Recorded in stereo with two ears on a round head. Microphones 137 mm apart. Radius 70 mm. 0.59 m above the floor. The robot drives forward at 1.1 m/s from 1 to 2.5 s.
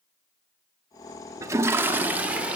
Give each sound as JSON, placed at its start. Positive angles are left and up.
{"t": 1.4, "sound": "a toilet flushing", "side_deg": -20, "distance_m": 0.7}